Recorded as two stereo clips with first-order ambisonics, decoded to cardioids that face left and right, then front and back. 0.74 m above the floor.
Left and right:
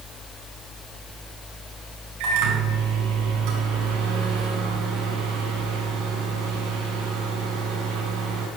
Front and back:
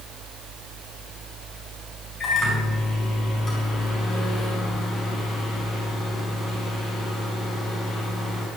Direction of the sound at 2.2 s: 70° right.